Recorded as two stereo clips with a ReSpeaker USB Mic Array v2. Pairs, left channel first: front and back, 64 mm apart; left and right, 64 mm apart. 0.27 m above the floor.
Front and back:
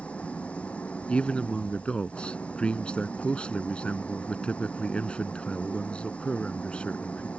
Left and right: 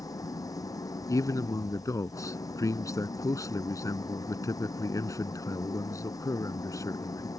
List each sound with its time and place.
0.0 s an engine running: 70° left
1.1 s a man speaking: 70° left